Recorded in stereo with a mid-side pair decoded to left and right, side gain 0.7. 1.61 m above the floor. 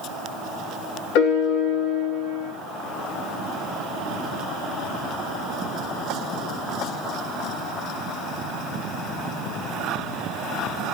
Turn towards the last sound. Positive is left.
turn(degrees=70)